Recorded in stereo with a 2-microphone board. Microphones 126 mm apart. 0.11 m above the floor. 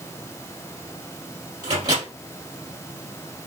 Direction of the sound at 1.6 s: 35° right (ahead or behind).